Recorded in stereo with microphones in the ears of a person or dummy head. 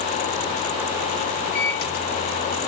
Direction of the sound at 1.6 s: 55° left (ahead or behind).